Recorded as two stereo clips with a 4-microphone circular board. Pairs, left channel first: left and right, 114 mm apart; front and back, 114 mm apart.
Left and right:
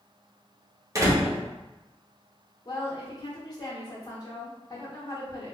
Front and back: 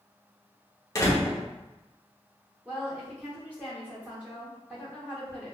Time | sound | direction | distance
0.9 | a door slam | 50° right | 0.7 m
2.6 | a woman speaking | 115° left | 0.9 m